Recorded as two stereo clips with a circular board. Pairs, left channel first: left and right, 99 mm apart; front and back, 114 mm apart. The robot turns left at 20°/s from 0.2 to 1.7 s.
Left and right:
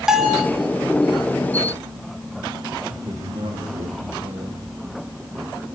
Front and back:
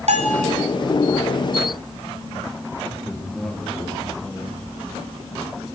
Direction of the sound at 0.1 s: 175° right.